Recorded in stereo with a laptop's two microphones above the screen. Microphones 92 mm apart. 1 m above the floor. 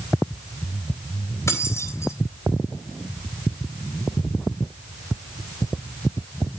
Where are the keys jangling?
30° left (ahead or behind), 3.5 m.